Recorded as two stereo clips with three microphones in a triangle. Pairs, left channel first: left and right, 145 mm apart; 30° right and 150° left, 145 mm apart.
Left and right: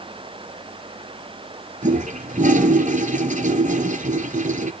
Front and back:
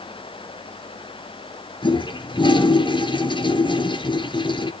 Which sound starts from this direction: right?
A toilet flushing, at 1.8 s.